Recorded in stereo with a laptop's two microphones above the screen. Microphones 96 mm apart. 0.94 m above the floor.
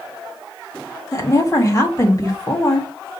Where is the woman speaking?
35° left (ahead or behind), 1.4 m.